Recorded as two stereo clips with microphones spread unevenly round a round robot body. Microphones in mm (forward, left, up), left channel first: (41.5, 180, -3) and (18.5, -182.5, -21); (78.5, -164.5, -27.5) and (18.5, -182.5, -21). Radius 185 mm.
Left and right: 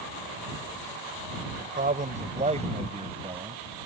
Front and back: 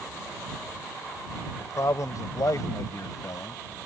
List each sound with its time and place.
1.6 s a man speaking: 25° right; by 3.9 s 15° right